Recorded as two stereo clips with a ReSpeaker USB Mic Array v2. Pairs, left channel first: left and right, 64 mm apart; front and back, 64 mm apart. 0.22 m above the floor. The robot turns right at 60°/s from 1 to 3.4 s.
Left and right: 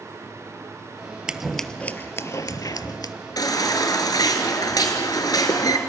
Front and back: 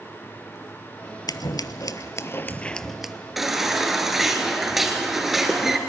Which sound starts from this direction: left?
A baby crying, at 3.4 s.